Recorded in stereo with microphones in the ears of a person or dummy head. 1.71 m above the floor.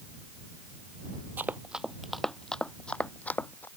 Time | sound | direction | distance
1.4 | running footsteps | 5° right (ahead or behind) | ?